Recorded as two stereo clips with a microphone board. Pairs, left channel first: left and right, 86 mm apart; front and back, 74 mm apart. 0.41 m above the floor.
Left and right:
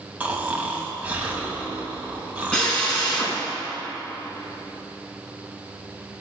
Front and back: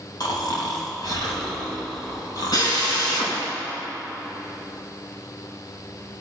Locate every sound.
0.2 s snoring: 20° right, 2.5 m
2.5 s a drill: 10° left, 5 m